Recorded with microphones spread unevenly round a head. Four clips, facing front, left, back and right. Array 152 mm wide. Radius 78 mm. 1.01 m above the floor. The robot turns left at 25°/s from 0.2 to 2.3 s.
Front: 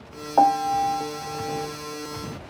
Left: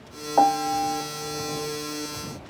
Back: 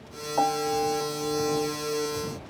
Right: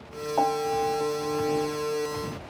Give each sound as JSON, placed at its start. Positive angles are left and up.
{"t": 0.4, "sound": "a piano", "azimuth_deg": 40}